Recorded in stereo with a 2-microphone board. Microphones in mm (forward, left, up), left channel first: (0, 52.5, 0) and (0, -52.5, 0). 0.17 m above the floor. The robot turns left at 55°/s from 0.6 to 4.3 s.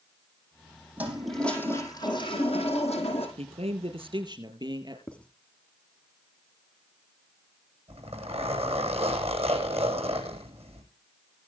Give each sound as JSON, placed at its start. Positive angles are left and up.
{"t": 1.0, "sound": "a toilet flushing", "azimuth_deg": -165, "distance_m": 5.0}
{"t": 3.4, "sound": "a man speaking", "azimuth_deg": -85, "distance_m": 4.0}
{"t": 5.1, "sound": "writing", "side_deg": 10, "distance_m": 1.1}
{"t": 7.9, "sound": "a zipper", "side_deg": -70, "distance_m": 10.0}